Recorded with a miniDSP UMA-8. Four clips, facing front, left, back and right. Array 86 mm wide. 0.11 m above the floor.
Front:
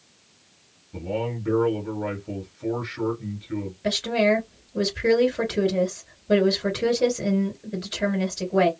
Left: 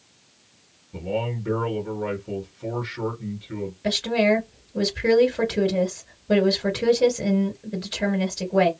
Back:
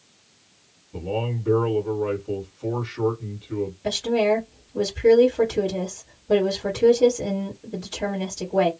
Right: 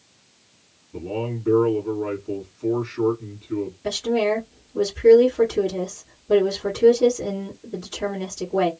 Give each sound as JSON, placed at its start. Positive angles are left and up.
{"t": 0.9, "sound": "a man speaking", "azimuth_deg": 45, "distance_m": 1.9}
{"t": 3.8, "sound": "a woman speaking", "azimuth_deg": 50, "distance_m": 2.0}